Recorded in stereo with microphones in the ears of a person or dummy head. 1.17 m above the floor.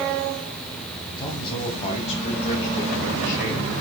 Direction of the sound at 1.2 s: 20° left (ahead or behind).